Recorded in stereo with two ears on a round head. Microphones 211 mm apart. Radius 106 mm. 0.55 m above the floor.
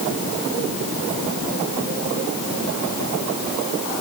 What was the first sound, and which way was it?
Only background noise.